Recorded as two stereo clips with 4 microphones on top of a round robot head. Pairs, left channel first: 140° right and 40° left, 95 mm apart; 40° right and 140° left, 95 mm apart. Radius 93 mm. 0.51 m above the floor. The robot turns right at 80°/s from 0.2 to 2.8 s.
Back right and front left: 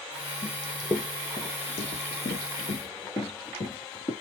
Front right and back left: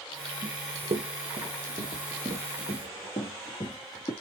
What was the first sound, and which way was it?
Running footsteps, 125° left.